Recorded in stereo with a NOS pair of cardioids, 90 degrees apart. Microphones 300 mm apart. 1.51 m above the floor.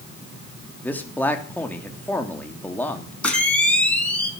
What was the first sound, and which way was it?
A man speaking, 5° left.